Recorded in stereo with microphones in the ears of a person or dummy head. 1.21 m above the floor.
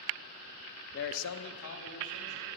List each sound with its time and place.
0.9 s a man speaking: 40° left (ahead or behind), 0.5 m; by 2.5 s 55° left (ahead or behind), 2 m